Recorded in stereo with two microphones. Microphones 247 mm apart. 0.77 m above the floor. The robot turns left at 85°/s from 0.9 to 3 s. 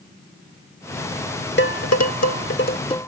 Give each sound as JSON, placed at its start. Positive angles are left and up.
{"t": 1.6, "sound": "dishes clattering", "side_deg": 45}